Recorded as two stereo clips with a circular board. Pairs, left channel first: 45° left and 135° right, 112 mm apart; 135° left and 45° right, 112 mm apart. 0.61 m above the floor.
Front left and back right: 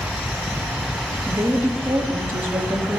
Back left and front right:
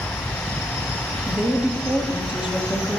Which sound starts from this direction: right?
A woman speaking, at 1.3 s.